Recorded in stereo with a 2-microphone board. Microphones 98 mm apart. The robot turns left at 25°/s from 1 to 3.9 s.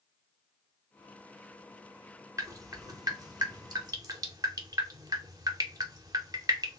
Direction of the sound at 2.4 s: 35° right (ahead or behind).